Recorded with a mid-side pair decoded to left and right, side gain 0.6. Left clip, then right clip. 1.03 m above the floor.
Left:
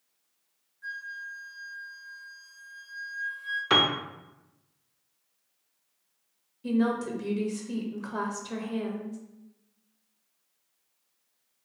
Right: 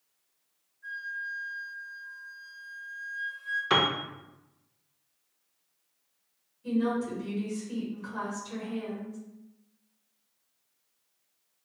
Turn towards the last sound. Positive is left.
turn(degrees=50)